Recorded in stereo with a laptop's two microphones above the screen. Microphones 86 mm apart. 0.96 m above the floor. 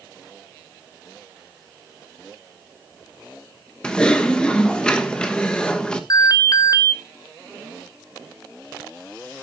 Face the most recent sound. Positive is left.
turn(degrees=45)  # may be behind; listen again after turning